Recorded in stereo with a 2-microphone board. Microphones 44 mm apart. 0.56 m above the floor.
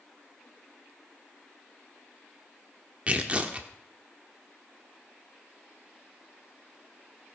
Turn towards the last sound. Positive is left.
turn(degrees=-30)  # may be behind; listen again after turning